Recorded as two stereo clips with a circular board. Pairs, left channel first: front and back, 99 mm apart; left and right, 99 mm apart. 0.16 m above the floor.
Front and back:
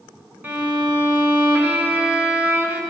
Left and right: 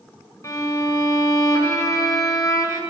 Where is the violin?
120° left, 1.8 m.